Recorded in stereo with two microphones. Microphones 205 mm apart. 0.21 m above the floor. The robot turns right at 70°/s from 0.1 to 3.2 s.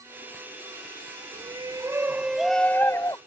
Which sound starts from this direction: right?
A shout, at 1.3 s.